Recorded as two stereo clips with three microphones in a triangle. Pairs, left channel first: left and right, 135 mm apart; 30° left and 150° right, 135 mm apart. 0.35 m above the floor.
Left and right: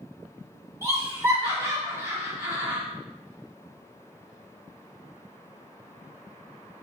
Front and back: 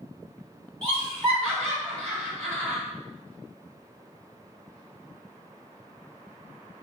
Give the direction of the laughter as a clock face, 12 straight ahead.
2 o'clock.